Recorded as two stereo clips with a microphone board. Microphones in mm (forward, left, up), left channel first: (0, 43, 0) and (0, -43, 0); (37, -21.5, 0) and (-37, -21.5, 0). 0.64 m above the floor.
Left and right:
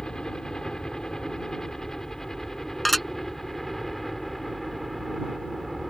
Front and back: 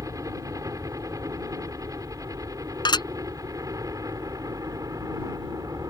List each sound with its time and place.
0.0 s a helicopter: 170° left; by 5.9 s straight behind
2.9 s dishes clattering: straight ahead